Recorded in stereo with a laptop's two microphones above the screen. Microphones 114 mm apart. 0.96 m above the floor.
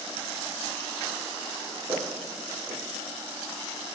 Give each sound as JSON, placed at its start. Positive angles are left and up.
{"t": 1.9, "sound": "footsteps", "side_deg": -25, "distance_m": 4.0}